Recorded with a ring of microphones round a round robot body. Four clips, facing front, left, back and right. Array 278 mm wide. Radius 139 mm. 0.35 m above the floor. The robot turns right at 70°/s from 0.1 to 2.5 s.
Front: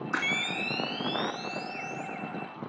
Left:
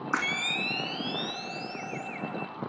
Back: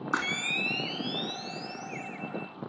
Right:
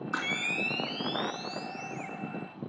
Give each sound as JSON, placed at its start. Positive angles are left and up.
{"t": 0.1, "sound": "a camera shutter", "azimuth_deg": 140, "distance_m": 2.5}